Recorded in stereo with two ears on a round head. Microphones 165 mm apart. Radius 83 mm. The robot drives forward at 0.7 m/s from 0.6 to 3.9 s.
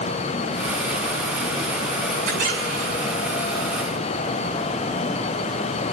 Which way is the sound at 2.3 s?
45° right (ahead or behind).